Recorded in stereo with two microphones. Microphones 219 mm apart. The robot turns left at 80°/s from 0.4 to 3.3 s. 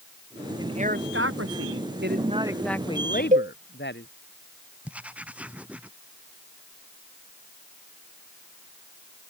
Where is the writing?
5° right (ahead or behind).